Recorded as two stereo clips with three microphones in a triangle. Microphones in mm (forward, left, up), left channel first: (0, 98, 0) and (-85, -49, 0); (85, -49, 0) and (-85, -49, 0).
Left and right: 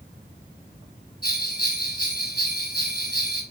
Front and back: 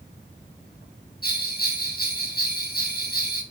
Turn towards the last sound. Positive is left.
turn(degrees=35)